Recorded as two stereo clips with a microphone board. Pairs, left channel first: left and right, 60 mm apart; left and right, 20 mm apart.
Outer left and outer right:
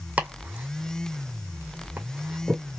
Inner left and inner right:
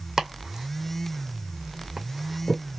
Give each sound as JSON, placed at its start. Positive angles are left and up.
{"t": 0.2, "sound": "chopping", "side_deg": -25, "distance_m": 2.0}